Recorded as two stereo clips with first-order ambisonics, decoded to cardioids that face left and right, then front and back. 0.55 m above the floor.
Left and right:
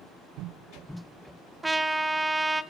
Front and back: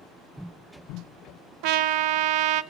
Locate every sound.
1.6 s a trumpet: 170° right, 0.8 m